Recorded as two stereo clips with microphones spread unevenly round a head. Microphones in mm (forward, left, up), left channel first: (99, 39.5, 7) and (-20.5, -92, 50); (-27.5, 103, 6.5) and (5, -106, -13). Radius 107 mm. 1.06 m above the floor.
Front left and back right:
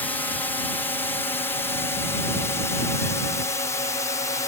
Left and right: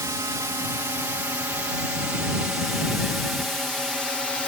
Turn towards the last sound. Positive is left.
turn(degrees=10)